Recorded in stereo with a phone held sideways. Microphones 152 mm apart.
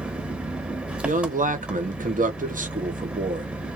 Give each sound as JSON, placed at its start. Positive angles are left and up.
{"t": 0.0, "sound": "an engine running", "side_deg": -10, "distance_m": 1.1}
{"t": 1.0, "sound": "a man speaking", "side_deg": -60, "distance_m": 1.2}